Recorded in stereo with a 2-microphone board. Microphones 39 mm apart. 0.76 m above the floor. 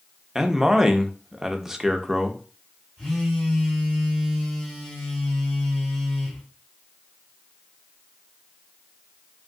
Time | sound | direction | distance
0.3 | a man speaking | 10° right (ahead or behind) | 0.6 m
3.0 | a phone buzzing | 10° left (ahead or behind) | 2.5 m